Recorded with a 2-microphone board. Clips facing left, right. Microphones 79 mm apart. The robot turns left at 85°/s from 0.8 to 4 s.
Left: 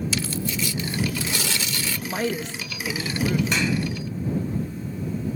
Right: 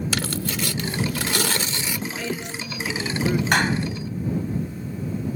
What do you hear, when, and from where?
0.1 s tearing paper: 70° right; by 2.0 s 170° right
2.1 s a woman speaking: 80° left; by 3.4 s 35° right
3.5 s a clap: 60° right (ahead or behind); by 3.8 s 30° right (ahead or behind)